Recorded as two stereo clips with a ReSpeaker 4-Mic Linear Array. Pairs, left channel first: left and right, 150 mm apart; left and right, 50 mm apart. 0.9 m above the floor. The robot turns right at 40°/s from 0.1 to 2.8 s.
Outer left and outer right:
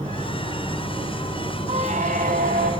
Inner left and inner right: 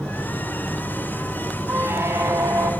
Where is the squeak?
130° right, 1.9 m; by 2.7 s 90° right, 1.9 m.